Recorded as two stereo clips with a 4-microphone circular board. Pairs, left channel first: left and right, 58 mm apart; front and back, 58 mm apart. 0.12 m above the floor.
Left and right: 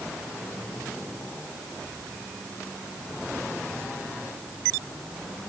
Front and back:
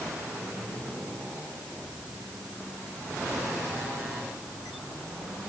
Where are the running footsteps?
No running footsteps in this recording.